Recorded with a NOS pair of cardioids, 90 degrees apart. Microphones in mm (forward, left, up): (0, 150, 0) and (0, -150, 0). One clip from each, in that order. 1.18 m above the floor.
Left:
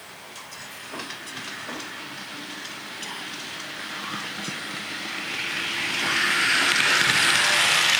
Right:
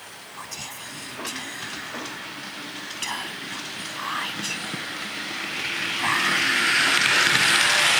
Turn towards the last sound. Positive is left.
turn(degrees=-50)